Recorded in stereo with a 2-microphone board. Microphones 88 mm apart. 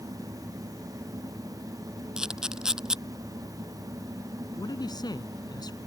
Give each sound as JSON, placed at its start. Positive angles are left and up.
{"t": 2.2, "sound": "a camera shutter", "side_deg": -10}
{"t": 4.6, "sound": "a man speaking", "side_deg": 50}